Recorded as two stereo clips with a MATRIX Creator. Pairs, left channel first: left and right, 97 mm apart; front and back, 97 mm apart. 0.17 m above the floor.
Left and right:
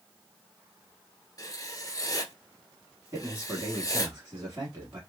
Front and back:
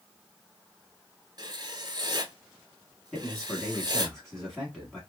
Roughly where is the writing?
Behind left.